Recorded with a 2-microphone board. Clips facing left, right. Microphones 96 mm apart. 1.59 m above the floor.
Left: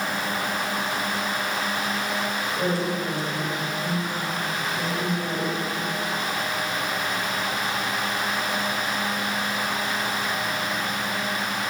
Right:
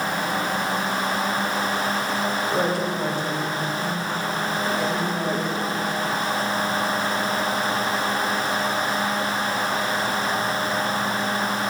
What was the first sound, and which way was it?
A woman speaking, 85° right.